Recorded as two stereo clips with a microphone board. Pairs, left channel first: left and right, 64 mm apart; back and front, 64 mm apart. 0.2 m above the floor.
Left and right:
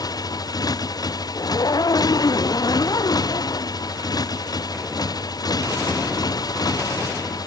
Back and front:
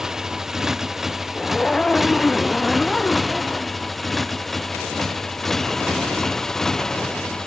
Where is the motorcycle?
80° left; by 7.5 s 100° left.